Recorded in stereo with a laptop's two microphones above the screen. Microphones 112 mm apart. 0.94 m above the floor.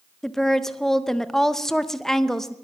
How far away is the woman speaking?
About 0.6 m.